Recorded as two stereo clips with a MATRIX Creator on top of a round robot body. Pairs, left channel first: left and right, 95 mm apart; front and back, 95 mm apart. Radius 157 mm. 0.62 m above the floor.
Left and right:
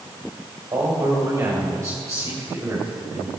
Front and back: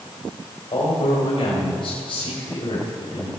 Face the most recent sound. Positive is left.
turn(degrees=-30)